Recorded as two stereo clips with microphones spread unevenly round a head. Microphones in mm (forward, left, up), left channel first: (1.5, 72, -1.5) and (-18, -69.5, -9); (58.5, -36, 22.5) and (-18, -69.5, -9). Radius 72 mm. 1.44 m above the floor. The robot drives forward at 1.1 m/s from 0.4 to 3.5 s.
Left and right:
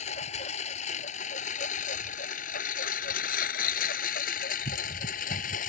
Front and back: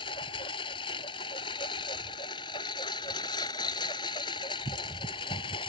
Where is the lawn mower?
40° left; by 5.7 s 50° left.